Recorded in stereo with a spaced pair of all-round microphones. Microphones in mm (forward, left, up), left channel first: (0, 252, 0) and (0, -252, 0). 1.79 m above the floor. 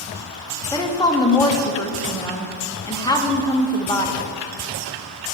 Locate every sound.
0.7 s a woman speaking: 10° left (ahead or behind), 0.7 m